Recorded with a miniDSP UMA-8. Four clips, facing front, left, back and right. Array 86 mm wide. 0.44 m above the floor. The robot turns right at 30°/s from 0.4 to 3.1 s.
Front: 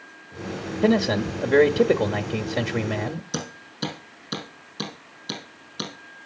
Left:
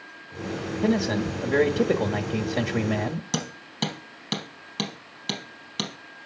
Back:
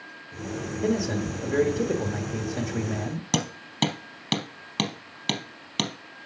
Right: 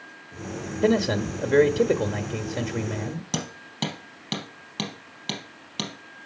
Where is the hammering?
175° right, 3.5 m.